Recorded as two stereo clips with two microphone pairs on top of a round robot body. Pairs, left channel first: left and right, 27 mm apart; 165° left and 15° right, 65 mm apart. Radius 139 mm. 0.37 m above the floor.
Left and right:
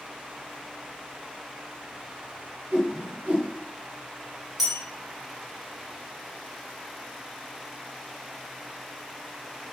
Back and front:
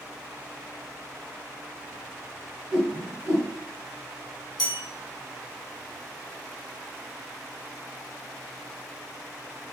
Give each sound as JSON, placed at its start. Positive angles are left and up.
{"t": 2.7, "sound": "a whoosh", "azimuth_deg": -90, "distance_m": 0.8}
{"t": 4.6, "sound": "a bell", "azimuth_deg": 175, "distance_m": 0.6}